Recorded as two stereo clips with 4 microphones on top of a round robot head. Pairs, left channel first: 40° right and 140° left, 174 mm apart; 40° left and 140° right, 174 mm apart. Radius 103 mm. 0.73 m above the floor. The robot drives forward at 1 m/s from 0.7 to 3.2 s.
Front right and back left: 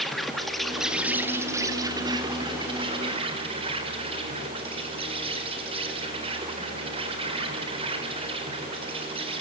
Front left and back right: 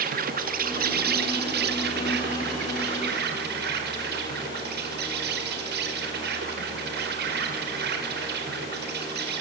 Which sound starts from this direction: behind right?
An insect, at 0.0 s.